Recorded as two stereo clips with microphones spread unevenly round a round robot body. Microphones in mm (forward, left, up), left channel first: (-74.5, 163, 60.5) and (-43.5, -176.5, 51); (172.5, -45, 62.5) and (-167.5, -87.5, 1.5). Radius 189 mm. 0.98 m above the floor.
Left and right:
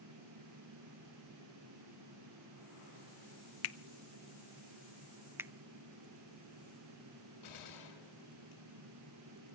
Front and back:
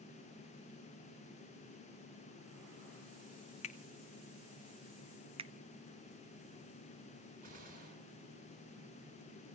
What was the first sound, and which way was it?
A finger snap, 85° left.